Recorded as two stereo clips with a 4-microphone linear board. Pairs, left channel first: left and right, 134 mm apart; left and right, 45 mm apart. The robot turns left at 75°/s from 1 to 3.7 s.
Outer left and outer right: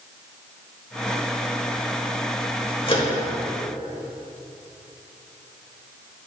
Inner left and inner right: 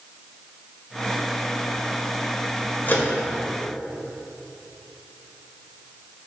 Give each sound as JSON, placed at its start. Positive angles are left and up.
{"t": 2.9, "sound": "a microwave", "side_deg": 40, "distance_m": 1.4}